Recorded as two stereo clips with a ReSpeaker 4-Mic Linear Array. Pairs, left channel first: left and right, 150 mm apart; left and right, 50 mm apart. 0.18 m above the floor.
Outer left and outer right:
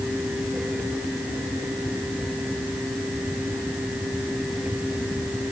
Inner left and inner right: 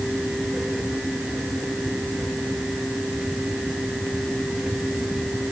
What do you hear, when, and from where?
Only background noise.